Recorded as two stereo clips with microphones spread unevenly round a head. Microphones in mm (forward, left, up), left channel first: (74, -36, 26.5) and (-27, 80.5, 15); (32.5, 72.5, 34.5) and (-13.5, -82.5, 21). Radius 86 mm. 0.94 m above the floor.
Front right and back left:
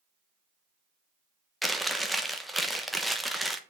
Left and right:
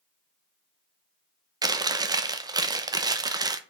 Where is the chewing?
145° right, 1.0 m.